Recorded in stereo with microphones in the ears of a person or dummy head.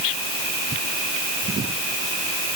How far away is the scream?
No scream in this recording.